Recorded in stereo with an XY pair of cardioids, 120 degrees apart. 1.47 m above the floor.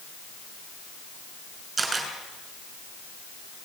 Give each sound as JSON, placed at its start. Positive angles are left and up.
{"t": 1.8, "sound": "a camera shutter", "azimuth_deg": -25, "distance_m": 5.5}